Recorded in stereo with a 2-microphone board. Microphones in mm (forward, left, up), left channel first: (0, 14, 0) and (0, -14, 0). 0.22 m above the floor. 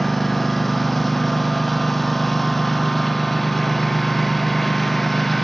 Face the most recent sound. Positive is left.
turn(degrees=5)  # may be behind; listen again after turning